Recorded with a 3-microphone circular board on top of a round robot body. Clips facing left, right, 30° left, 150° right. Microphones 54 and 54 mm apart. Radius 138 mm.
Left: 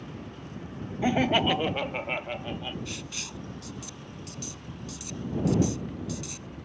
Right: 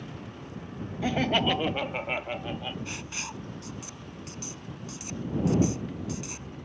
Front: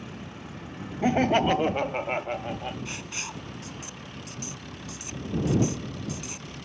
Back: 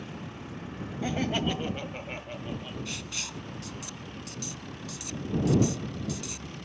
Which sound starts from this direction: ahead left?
Laughter, at 1.0 s.